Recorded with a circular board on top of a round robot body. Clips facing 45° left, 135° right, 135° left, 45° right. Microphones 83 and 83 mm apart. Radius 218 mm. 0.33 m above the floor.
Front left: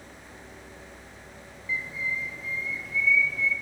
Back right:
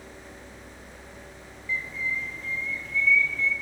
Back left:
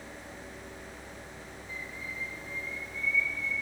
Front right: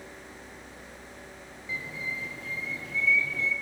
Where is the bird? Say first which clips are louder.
Back right 1 dB, front right 7 dB; 40° right, 2.5 m.